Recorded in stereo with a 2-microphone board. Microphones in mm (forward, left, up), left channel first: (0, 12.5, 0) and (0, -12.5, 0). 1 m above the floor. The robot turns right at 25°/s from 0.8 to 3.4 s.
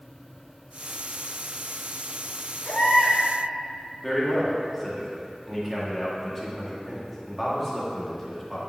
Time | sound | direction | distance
2.6 | a baby crying | 80° left | 1.8 m
4.0 | a man speaking | 5° left (ahead or behind) | 1.8 m